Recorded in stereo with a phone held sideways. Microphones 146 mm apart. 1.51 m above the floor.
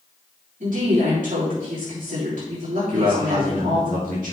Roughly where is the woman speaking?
Right.